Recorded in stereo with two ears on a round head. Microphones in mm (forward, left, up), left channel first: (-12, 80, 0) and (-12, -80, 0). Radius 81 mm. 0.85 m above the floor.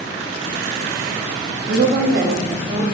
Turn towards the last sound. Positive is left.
turn(degrees=-40)  # may be behind; listen again after turning